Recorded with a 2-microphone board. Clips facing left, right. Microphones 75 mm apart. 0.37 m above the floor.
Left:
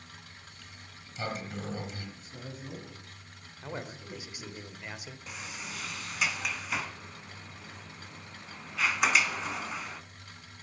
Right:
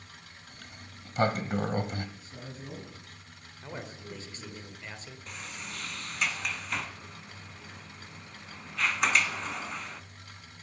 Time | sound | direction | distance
0.5 | a sliding door | 55° right (ahead or behind) | 1.0 m
2.2 | a man speaking | 5° right (ahead or behind) | 3 m
3.6 | a man speaking | 10° left (ahead or behind) | 1.2 m
5.3 | a sliding door | 5° left (ahead or behind) | 0.7 m